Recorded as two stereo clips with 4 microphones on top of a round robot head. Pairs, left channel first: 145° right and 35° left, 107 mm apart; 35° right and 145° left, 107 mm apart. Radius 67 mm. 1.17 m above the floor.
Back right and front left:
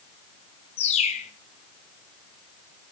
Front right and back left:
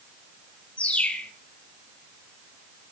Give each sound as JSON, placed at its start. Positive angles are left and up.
{"t": 0.8, "sound": "a bird", "azimuth_deg": -115, "distance_m": 1.2}